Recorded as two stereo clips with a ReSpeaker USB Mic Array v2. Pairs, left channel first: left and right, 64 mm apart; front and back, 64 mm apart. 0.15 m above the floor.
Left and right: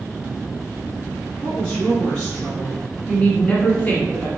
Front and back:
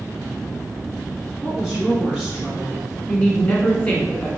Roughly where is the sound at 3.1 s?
Ahead left.